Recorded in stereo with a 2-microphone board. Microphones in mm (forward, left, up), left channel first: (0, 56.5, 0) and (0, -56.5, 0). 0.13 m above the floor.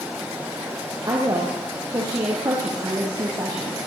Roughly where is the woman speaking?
Right.